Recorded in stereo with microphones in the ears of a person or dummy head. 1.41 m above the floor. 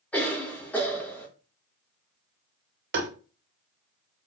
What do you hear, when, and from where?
0.1 s a cough: 5° left (ahead or behind), 1.7 m
2.9 s tapping: 55° right (ahead or behind), 1.3 m